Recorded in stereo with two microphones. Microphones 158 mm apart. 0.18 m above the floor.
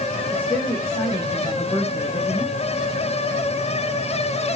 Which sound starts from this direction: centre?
A woman speaking, at 0.3 s.